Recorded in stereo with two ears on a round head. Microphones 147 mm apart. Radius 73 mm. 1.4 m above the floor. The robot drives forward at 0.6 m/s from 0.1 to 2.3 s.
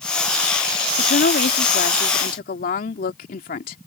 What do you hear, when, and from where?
1.0 s a woman speaking: 70° left (ahead or behind); by 3.8 s 55° left (ahead or behind)